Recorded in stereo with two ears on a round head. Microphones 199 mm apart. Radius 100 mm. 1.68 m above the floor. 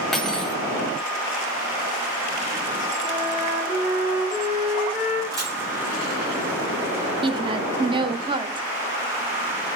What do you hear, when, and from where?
0.1 s cutlery clinking: 5° left (ahead or behind), 1.3 m
3.0 s a flute: 30° right (ahead or behind), 6 m
5.3 s a camera shutter: 15° right (ahead or behind), 5 m
7.2 s a woman speaking: 25° right (ahead or behind), 0.8 m